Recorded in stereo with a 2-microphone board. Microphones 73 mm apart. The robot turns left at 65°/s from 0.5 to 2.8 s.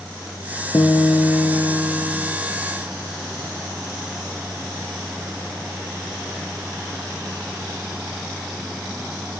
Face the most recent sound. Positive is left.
turn(degrees=5)